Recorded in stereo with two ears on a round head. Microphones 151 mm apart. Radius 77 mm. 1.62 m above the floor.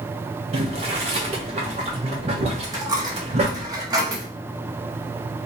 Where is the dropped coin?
20° right (ahead or behind), 0.9 m.